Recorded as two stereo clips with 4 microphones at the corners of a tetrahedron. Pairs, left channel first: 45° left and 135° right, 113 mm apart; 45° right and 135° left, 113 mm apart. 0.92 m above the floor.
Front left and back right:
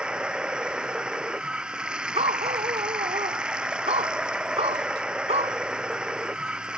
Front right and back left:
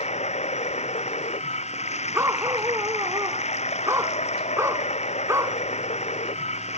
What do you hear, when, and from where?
0.0 s running water: 55° right
2.1 s a dog barking: 160° right